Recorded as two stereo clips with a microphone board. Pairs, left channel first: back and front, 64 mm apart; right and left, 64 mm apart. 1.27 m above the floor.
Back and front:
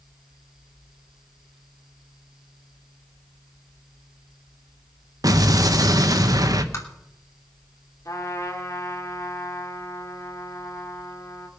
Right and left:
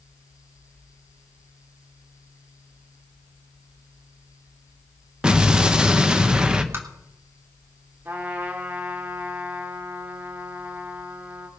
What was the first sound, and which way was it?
An explosion, 15° left.